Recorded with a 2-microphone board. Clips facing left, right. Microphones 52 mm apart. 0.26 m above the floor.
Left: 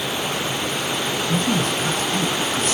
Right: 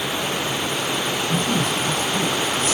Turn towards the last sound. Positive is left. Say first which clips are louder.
# left 1 dB
turn(degrees=55)  # may be behind; listen again after turning